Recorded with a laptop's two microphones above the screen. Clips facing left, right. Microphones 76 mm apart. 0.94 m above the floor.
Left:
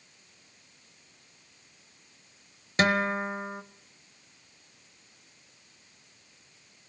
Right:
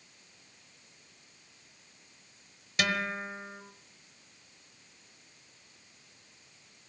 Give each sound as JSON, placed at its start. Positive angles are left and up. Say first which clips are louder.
{"t": 2.8, "sound": "a guitar", "louder": "left 6 dB", "side_deg": 40, "distance_m": 1.1}